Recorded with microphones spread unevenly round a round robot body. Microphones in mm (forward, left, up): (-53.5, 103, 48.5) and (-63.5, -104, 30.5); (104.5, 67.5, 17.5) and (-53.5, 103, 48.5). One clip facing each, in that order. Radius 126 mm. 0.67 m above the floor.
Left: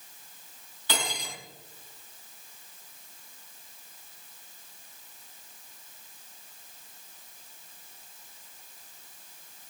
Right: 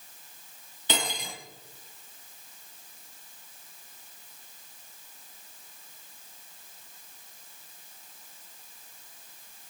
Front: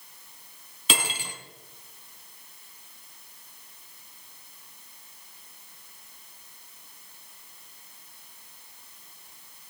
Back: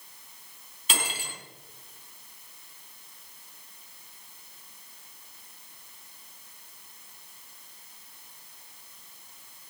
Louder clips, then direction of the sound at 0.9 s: Right 2 dB, front 3 dB; 20° right.